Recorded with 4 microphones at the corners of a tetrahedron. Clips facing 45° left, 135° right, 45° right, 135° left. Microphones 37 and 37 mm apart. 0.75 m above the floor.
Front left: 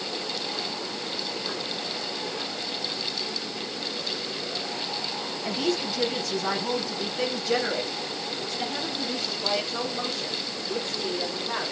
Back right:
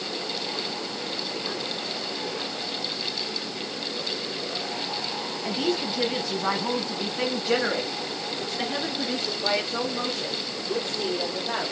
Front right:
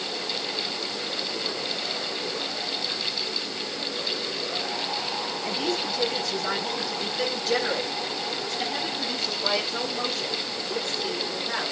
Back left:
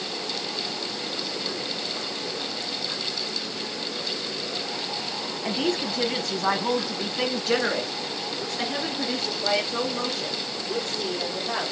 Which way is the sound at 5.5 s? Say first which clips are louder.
Back right 1 dB, back left 3 dB; 145° left.